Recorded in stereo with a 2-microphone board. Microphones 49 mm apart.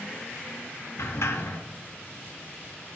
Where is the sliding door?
70° left (ahead or behind), 0.7 m.